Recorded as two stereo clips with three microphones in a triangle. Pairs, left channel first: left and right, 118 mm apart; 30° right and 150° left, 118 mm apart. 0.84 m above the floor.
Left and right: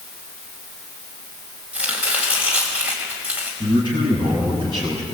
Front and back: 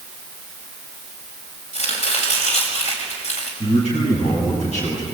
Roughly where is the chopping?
Ahead.